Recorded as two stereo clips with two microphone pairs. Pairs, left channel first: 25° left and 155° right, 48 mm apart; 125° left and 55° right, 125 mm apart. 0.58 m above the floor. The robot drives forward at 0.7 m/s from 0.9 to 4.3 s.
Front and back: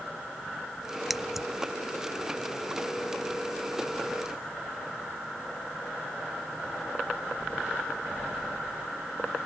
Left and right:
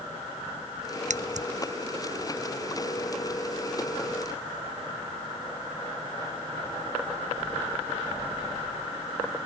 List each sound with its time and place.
1.1 s scissors: 70° right; by 1.5 s 75° right